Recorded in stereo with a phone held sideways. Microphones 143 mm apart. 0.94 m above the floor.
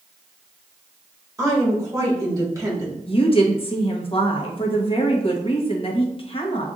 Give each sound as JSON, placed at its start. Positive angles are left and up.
{"t": 1.4, "sound": "a woman speaking", "side_deg": -20, "distance_m": 1.8}
{"t": 3.1, "sound": "a woman speaking", "side_deg": 40, "distance_m": 1.0}